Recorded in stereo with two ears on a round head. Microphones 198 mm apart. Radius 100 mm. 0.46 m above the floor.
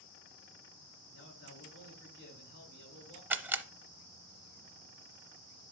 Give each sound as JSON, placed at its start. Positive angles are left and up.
{"t": 1.1, "sound": "a man speaking", "side_deg": 55, "distance_m": 6.0}
{"t": 3.3, "sound": "a camera shutter", "side_deg": -10, "distance_m": 0.6}